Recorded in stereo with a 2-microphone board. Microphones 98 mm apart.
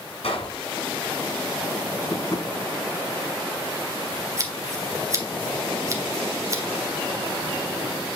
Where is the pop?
75° left (ahead or behind), 5.5 m.